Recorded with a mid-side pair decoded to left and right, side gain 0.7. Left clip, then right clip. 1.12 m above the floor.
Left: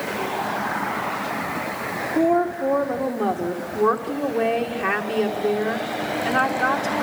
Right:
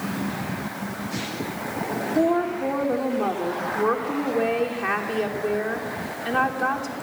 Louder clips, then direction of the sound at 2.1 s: Left 2 dB; 10° left.